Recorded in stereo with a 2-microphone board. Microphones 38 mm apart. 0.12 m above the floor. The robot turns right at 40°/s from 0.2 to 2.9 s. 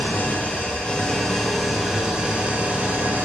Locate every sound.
0.0 s an engine running: 125° left, 0.8 m; by 3.3 s 125° right, 0.8 m